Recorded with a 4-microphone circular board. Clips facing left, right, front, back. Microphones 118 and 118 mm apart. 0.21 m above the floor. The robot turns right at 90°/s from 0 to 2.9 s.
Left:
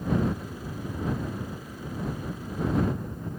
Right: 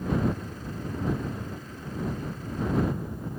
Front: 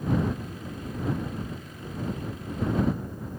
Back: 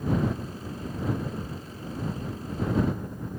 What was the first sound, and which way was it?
Only background noise.